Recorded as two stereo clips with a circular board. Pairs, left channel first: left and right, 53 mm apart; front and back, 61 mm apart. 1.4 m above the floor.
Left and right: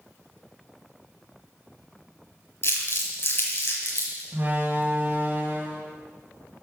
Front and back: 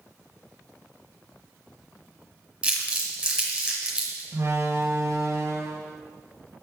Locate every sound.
2.6 s crumpling: 105° left, 1.9 m
4.3 s a door slam: 140° right, 1.3 m